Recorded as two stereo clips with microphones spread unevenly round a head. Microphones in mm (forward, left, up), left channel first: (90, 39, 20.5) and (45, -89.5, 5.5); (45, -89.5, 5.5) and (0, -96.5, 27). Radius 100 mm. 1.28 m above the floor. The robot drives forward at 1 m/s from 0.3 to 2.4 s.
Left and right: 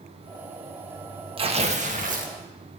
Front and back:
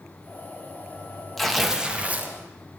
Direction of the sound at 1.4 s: 65° right.